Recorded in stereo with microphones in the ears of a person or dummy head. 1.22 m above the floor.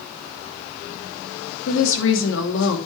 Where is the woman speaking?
75° left (ahead or behind), 3 m.